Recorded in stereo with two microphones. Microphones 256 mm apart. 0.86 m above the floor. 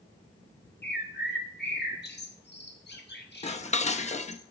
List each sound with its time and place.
0.8 s a bird: 40° left (ahead or behind), 1.1 m
3.4 s dishes clattering: 25° left (ahead or behind), 0.5 m